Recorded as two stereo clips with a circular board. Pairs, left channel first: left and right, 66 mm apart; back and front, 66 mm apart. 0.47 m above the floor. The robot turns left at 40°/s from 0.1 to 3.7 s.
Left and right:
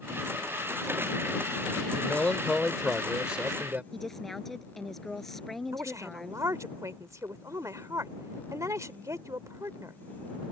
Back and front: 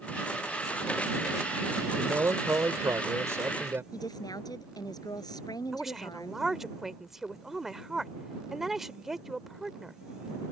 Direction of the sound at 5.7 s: 85° right.